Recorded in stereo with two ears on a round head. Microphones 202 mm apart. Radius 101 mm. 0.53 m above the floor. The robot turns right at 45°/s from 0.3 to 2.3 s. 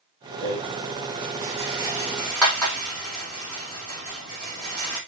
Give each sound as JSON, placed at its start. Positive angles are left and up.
{"t": 0.4, "sound": "a rattle", "side_deg": -80, "distance_m": 3.5}